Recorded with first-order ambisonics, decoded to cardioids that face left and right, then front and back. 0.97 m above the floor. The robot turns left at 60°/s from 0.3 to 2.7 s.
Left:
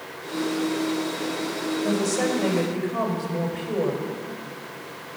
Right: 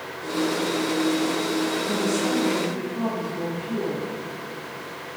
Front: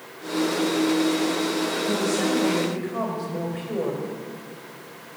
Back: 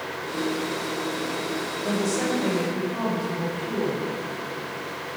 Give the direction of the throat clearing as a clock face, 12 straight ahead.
No throat clearing in this recording.